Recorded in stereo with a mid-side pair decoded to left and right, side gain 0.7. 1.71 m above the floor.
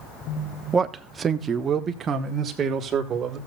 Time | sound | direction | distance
0.7 | a man speaking | 20° right | 1.0 m